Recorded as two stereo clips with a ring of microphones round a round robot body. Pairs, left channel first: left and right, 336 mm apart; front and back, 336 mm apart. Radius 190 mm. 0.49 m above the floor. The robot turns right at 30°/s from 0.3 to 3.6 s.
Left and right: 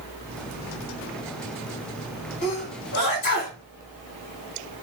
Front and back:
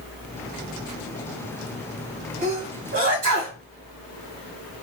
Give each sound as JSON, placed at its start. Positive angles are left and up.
{"t": 2.4, "sound": "a sneeze", "azimuth_deg": 120, "distance_m": 1.3}